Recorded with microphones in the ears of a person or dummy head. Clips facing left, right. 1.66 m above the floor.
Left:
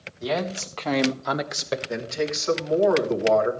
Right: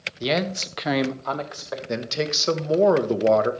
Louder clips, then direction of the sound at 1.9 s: Right 5 dB; 50° right (ahead or behind).